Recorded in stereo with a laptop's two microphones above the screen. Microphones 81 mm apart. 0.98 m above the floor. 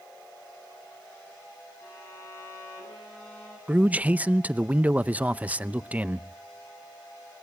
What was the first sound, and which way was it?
A violin, 30° left (ahead or behind).